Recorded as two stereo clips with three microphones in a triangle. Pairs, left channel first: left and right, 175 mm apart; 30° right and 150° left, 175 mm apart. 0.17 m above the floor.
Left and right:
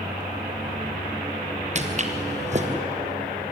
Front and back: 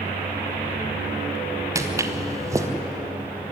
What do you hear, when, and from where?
1.8 s footsteps: 135° right, 2.5 m